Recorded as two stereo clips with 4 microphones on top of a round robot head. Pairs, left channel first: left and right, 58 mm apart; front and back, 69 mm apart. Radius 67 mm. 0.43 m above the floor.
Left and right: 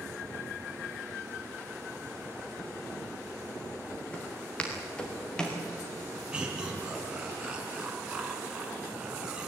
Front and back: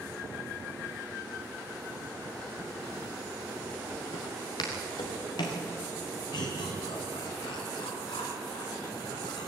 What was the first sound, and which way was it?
Footsteps, 20° left.